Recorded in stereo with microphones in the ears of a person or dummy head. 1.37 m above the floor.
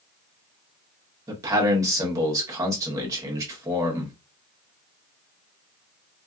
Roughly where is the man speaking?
Right.